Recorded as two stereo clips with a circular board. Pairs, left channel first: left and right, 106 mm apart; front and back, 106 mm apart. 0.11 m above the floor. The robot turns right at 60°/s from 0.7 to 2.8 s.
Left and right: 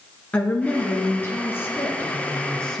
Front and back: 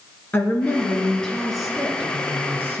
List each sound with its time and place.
0.3 s a woman speaking: 40° left, 1.1 m; by 2.8 s 165° left, 1.1 m